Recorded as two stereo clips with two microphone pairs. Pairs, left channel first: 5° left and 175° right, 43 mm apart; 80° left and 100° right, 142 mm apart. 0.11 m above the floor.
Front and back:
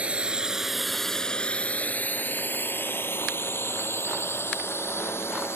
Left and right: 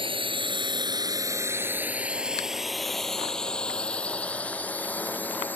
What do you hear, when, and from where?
0.0 s a drone: 130° right; by 5.6 s 5° left